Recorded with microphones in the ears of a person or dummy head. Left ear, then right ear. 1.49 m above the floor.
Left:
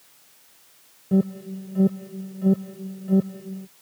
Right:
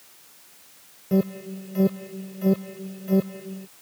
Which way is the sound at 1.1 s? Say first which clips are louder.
Even; 50° right (ahead or behind).